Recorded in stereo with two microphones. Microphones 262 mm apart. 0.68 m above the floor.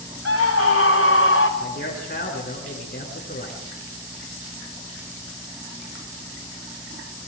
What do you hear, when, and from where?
0.2 s a scream: 65° left (ahead or behind), 2.5 m; by 1.5 s 50° left (ahead or behind), 3 m
1.6 s a man speaking: 35° left (ahead or behind), 8.5 m